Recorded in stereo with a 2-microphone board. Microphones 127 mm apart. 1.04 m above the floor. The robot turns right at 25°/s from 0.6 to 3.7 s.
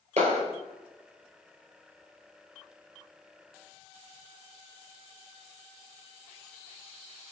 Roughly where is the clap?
Right.